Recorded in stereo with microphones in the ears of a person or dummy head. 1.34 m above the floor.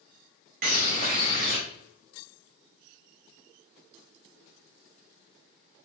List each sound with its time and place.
0.6 s a bird: 45° right (ahead or behind), 1.0 m